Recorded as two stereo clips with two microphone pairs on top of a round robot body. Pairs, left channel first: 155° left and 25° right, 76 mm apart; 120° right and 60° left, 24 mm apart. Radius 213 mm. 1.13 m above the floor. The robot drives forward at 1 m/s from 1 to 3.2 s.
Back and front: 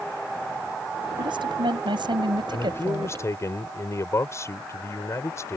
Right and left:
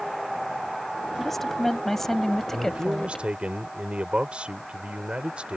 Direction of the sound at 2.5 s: 95° left.